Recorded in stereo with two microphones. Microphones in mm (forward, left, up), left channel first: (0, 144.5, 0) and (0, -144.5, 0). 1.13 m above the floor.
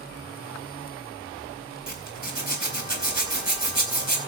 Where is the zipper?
80° right, 4 m.